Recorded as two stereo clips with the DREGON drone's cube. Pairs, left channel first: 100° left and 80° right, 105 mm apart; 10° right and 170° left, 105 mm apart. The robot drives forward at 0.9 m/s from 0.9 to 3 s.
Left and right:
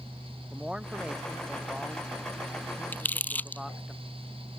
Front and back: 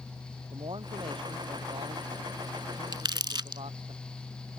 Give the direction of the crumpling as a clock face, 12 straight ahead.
7 o'clock.